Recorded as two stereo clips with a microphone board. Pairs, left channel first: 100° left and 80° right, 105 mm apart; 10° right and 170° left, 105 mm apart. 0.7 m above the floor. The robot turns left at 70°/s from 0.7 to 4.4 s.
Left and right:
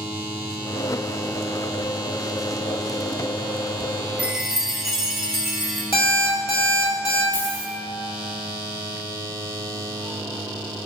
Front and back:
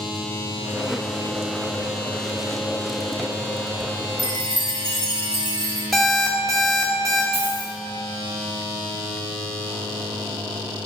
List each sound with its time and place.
4.2 s a chime: 150° right, 0.8 m; by 5.8 s 165° right, 0.8 m
5.9 s an alarm clock: 75° left, 1.5 m
7.3 s a dropped coin: 170° left, 2 m